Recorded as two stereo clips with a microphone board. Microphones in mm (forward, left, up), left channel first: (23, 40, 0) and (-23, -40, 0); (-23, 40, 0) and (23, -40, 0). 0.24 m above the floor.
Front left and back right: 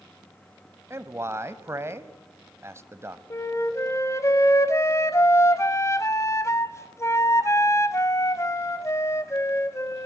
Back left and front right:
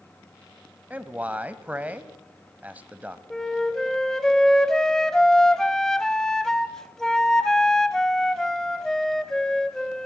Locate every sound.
0.9 s a man speaking: 115° right, 1.2 m
3.3 s a flute: 40° left, 1.3 m